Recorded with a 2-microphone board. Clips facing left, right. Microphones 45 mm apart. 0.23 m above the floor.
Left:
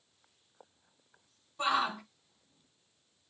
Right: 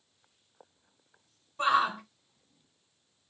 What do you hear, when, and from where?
1.6 s a shout: 15° right (ahead or behind), 1.2 m